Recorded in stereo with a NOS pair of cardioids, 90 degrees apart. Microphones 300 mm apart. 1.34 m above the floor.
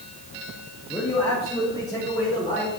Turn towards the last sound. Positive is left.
turn(degrees=15)